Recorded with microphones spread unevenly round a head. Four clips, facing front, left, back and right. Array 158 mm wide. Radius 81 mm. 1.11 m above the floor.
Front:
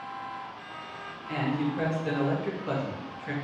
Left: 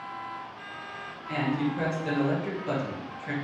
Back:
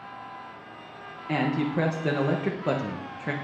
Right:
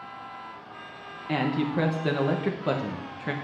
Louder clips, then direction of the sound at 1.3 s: Right 2 dB, back 3 dB; 140° right.